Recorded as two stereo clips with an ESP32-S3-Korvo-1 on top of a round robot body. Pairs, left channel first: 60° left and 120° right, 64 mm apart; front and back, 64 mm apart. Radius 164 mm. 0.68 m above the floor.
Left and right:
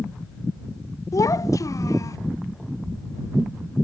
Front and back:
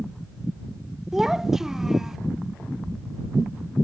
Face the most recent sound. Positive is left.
turn(degrees=100)